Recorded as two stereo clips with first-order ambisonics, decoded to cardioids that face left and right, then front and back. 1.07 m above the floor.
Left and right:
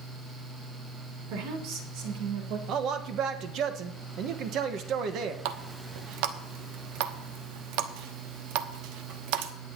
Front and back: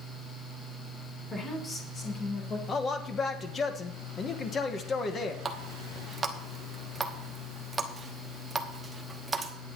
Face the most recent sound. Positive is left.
turn(degrees=-105)